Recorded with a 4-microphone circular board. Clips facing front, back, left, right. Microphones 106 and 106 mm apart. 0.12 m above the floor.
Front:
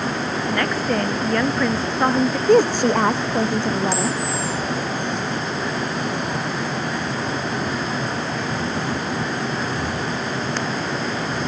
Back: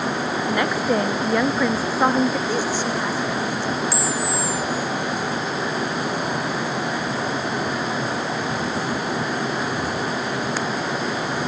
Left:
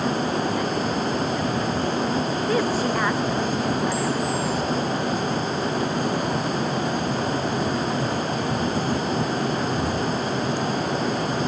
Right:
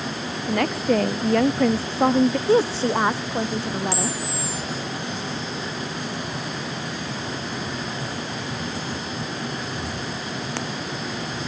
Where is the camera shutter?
95° right.